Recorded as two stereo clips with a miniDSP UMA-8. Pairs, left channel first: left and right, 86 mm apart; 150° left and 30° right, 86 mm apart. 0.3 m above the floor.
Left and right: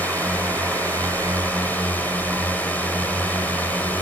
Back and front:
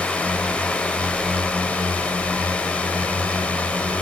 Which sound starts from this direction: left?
A drone, at 0.0 s.